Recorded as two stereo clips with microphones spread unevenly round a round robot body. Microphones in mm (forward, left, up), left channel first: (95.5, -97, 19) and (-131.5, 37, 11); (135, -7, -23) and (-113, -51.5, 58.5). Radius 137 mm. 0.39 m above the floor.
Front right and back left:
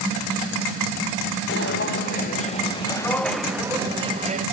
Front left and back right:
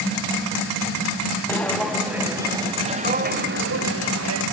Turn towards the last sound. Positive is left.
turn(degrees=-150)